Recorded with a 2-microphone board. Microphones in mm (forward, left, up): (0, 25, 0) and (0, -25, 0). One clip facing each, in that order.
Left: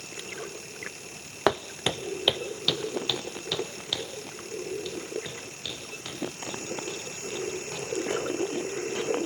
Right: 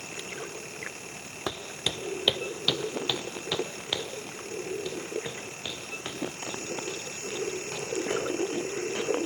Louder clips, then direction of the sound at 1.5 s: Left 8 dB; 70° left (ahead or behind).